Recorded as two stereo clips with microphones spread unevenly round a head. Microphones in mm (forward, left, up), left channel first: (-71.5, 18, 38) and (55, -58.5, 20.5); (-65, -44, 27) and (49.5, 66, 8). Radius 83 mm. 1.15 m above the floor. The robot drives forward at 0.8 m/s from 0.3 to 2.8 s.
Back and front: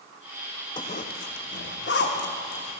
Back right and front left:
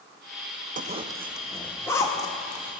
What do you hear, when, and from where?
0.8 s a zipper: 85° left, 0.5 m; by 2.8 s 165° left, 1.7 m